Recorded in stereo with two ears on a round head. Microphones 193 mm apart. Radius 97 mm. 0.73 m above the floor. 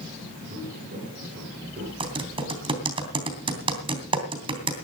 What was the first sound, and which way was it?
Footsteps, 40° right (ahead or behind).